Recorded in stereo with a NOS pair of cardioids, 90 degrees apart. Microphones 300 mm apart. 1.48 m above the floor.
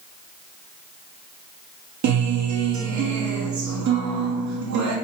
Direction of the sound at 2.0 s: 70° right.